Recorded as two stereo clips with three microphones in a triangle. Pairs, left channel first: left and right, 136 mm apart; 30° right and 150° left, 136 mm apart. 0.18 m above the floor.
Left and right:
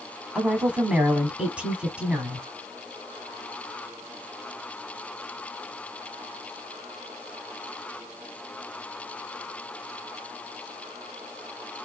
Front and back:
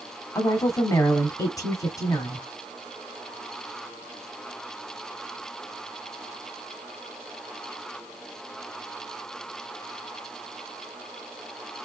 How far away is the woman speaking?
About 1.1 m.